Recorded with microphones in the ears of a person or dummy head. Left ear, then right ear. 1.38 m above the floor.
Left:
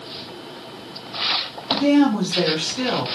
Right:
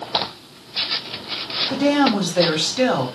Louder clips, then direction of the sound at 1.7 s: Left 1 dB; 30° right (ahead or behind).